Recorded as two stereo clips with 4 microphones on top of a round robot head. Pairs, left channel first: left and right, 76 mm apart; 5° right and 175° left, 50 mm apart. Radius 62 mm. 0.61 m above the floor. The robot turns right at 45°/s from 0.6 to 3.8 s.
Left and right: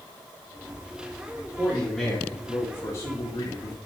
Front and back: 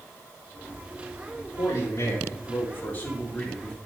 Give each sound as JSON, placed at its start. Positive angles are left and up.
{"t": 1.6, "sound": "a man speaking", "azimuth_deg": -10, "distance_m": 3.0}